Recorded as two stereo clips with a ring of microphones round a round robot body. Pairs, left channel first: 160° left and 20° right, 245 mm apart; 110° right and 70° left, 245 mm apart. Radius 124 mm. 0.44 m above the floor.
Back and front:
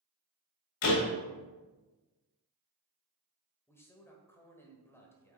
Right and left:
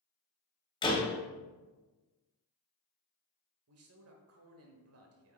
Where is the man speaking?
80° left, 1.4 m.